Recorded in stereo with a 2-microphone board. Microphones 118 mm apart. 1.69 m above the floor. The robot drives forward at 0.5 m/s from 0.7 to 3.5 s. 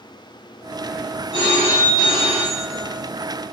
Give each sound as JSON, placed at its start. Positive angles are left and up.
{"t": 1.3, "sound": "a phone ringing", "side_deg": 35, "distance_m": 2.5}